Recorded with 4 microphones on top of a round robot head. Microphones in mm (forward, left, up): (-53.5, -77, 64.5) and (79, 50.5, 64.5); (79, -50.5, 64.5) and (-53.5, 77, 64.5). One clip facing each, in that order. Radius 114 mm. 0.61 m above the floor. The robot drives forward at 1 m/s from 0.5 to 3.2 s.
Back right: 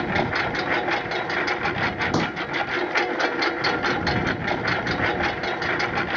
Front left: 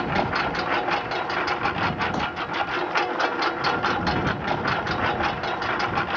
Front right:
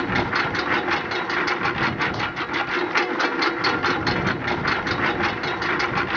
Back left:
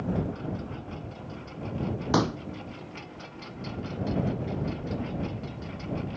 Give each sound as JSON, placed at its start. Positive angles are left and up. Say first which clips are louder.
{"t": 0.0, "sound": "a lawn mower", "louder": "back right 1 dB, front right 6 dB", "azimuth_deg": -55}
{"t": 2.1, "sound": "a pop", "louder": "back right 5 dB, back left 5 dB", "azimuth_deg": 175}